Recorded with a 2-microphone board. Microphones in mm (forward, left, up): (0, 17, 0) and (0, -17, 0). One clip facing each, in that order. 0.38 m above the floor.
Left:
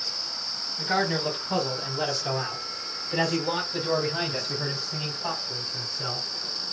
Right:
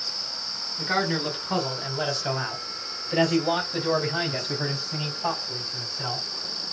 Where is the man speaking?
20° right (ahead or behind), 1.7 m; by 6.3 s 40° right (ahead or behind), 3.5 m.